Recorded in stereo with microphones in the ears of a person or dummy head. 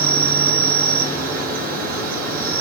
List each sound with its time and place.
0.0 s an insect: 55° right (ahead or behind), 6.5 m